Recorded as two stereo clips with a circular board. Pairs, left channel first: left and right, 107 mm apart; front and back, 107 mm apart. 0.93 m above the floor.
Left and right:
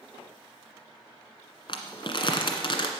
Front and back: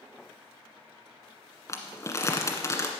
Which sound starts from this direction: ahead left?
Crumpling, at 1.7 s.